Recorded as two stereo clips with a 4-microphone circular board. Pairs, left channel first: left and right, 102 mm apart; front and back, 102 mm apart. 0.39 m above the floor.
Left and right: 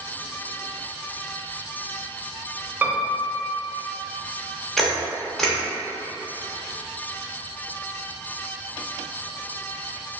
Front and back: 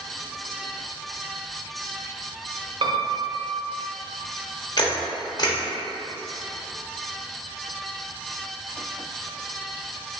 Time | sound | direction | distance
2.8 | a piano | 160° right | 0.6 m
4.8 | a camera shutter | 5° left | 0.7 m